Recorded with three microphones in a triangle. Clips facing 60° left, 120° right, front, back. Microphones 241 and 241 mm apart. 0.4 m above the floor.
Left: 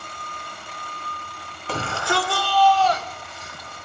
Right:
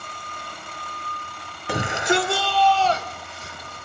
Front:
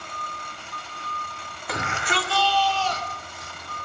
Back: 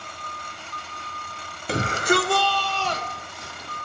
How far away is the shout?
About 1.3 m.